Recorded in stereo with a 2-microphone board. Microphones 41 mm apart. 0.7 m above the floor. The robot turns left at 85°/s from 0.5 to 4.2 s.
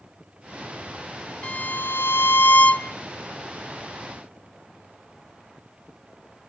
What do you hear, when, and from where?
1.4 s a violin: 150° left, 1.0 m; by 2.9 s 25° left, 1.0 m